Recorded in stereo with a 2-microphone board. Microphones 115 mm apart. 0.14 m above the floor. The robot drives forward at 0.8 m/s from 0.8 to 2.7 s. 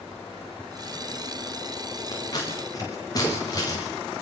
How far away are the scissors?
About 8 m.